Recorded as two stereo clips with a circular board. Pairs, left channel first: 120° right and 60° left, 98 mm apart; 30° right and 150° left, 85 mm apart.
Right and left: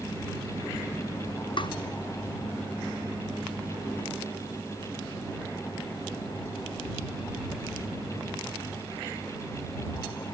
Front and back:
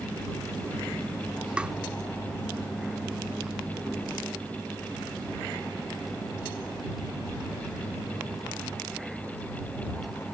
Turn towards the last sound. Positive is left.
turn(degrees=-135)